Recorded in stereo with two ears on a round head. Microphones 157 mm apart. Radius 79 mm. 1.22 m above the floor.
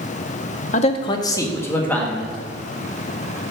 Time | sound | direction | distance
0.7 | a man speaking | 40° left (ahead or behind) | 0.6 m